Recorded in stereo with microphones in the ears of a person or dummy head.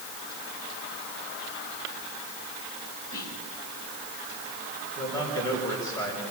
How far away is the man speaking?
About 5 m.